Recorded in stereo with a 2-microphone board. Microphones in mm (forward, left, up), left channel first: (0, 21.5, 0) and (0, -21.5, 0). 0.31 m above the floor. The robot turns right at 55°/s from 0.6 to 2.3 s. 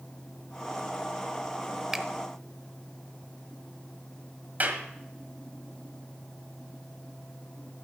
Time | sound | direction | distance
1.9 | a finger snap | 10° right (ahead or behind) | 0.6 m
4.6 | a clap | 40° right (ahead or behind) | 1.6 m